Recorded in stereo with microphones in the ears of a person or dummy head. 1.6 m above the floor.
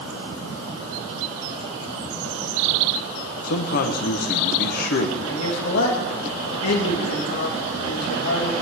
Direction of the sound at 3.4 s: 55° left (ahead or behind).